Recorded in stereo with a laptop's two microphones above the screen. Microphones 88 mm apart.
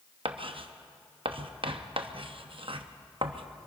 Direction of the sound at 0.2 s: 80° right.